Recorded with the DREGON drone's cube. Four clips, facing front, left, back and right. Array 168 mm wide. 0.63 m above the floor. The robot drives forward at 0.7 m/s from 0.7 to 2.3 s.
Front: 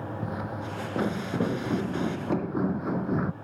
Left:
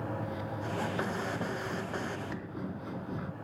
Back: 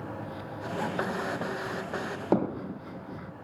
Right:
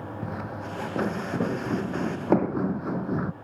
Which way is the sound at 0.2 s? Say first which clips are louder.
Right 3 dB, front 4 dB; 50° right.